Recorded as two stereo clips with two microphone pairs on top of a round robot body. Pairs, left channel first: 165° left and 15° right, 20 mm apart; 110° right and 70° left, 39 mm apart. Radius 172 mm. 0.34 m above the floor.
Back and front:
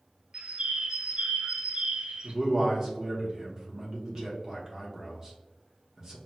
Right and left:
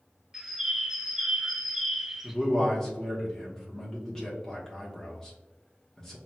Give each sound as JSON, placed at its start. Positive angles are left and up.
{"t": 0.3, "sound": "a bird", "azimuth_deg": -10, "distance_m": 0.5}
{"t": 2.2, "sound": "a man speaking", "azimuth_deg": -55, "distance_m": 1.1}